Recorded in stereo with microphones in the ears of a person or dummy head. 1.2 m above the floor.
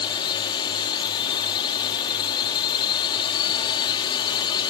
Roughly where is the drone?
Left.